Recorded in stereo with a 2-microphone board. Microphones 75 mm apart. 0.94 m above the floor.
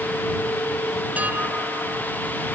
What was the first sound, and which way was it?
Dishes clattering, 20° right (ahead or behind).